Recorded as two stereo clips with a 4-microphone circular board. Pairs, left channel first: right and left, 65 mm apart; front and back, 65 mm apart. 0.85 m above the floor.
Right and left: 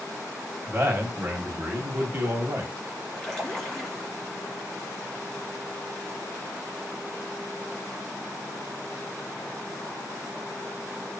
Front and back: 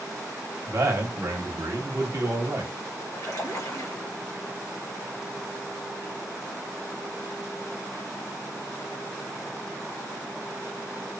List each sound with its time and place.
0.7 s a man speaking: 145° left, 0.9 m
3.1 s a splash: 10° right, 1.2 m